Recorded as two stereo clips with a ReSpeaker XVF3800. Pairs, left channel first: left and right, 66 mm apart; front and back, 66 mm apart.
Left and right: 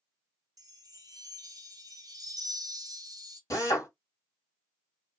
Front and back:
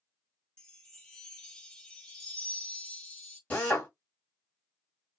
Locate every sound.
0.6 s a chime: 80° right, 0.9 m
3.5 s a drill: 65° left, 1.9 m